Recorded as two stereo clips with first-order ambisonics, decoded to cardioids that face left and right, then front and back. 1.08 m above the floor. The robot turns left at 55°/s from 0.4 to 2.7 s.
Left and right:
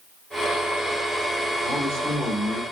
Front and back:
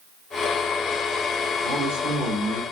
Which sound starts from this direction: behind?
A man speaking, at 1.6 s.